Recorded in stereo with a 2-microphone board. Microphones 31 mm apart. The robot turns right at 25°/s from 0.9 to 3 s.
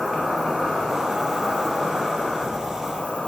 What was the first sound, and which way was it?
An insect, 15° right.